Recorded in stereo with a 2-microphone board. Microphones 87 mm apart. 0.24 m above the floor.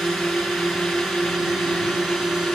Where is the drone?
5° right (ahead or behind).